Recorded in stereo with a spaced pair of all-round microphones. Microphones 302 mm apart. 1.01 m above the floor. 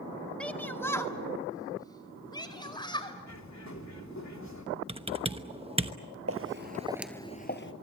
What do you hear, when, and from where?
0.4 s a shout: 5° left (ahead or behind), 1.4 m; by 3.2 s 15° left (ahead or behind), 4.5 m
3.3 s a bird: 65° left (ahead or behind), 3 m
4.9 s typing on a keyboard: 20° right (ahead or behind), 1.0 m
6.3 s footsteps: 50° right (ahead or behind), 1.5 m; by 7.7 s 45° left (ahead or behind), 1.4 m